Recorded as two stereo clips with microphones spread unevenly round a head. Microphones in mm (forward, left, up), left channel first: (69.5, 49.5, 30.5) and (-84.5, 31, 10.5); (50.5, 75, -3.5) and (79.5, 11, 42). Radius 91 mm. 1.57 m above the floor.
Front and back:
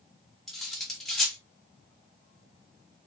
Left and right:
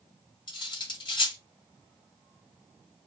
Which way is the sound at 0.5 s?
85° left.